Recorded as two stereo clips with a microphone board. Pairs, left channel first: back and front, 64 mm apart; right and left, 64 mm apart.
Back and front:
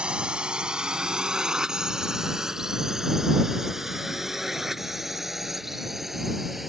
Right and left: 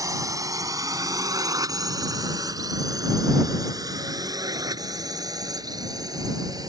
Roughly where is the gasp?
I don't hear a gasp.